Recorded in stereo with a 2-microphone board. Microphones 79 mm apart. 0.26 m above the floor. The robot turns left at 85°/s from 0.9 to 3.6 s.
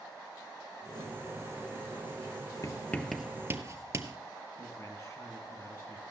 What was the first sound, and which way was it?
Writing, 45° left (ahead or behind).